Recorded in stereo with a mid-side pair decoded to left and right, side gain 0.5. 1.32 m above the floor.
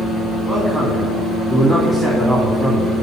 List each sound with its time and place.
0.5 s a man speaking: 15° right, 2 m